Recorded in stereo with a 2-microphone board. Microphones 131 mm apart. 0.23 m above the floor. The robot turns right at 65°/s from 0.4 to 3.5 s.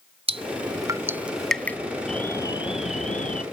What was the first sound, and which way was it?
Dripping, 45° right (ahead or behind).